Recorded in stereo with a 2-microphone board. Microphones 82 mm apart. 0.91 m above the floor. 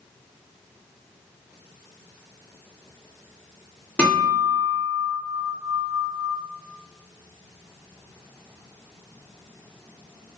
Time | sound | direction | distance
4.0 | a guitar | 15° left (ahead or behind) | 1.3 m